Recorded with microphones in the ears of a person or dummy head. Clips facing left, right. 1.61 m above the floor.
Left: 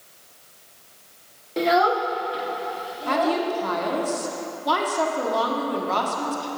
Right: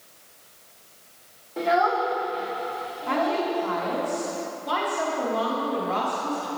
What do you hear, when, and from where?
1.6 s a child speaking: 40° left (ahead or behind), 0.6 m; by 3.5 s 55° left (ahead or behind), 1.8 m
3.1 s a woman speaking: 65° left (ahead or behind), 1.1 m